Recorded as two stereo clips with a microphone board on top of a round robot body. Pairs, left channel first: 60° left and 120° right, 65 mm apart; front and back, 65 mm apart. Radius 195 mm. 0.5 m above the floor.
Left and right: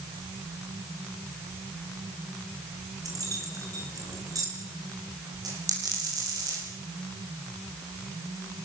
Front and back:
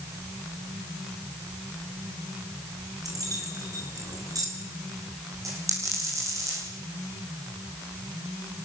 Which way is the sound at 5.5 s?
140° right.